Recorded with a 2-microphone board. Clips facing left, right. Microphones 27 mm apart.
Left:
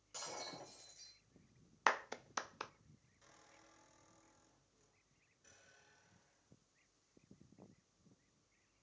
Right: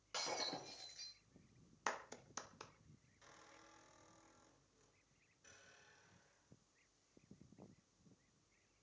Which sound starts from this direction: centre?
A squeak, at 3.2 s.